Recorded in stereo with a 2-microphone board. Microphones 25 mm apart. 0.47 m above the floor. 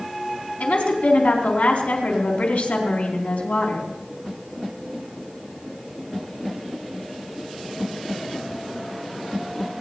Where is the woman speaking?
70° left (ahead or behind), 4.5 m.